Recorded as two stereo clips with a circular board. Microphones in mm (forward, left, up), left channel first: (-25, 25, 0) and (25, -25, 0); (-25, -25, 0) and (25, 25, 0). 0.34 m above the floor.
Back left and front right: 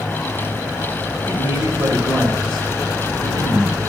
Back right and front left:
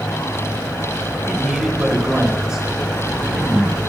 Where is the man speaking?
30° right, 1.5 m.